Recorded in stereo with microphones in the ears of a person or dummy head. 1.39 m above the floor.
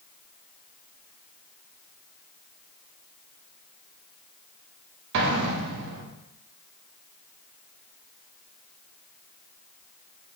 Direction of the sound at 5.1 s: 65° right (ahead or behind).